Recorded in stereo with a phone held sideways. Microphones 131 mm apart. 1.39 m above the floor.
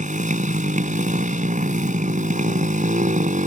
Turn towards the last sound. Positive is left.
turn(degrees=-75)  # may be behind; listen again after turning